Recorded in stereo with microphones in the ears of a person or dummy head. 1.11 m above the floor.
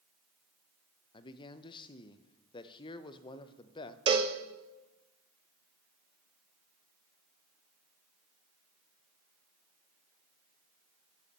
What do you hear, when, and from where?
1.1 s a man speaking: 25° left (ahead or behind), 0.6 m
4.1 s a cowbell: 25° right (ahead or behind), 0.9 m